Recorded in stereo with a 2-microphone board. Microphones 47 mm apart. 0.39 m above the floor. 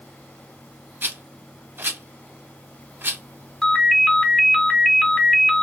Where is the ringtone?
15° left (ahead or behind), 1.2 m.